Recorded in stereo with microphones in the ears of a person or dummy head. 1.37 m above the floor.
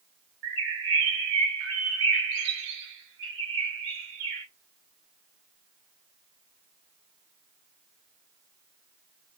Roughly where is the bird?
Right.